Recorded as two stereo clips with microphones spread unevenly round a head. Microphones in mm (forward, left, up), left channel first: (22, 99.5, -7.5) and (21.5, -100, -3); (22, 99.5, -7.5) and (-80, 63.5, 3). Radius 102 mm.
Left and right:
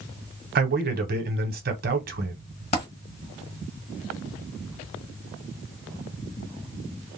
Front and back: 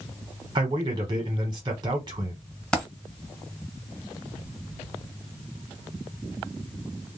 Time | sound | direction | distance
0.6 | a man speaking | 120° right | 0.9 m
2.7 | a dropped coin | 105° left | 1.8 m